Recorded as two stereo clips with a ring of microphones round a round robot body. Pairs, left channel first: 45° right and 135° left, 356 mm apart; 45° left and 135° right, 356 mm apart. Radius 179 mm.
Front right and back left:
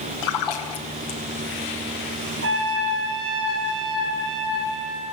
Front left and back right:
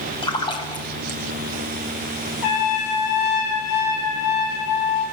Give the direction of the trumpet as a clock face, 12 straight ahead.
9 o'clock.